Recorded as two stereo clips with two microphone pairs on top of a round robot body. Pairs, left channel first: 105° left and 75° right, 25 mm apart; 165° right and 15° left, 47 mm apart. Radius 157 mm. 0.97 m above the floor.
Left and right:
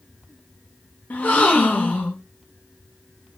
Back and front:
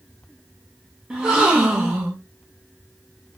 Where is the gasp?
85° left, 0.7 m.